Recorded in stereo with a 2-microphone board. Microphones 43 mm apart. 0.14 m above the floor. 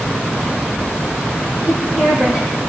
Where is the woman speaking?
20° right (ahead or behind), 6.5 m.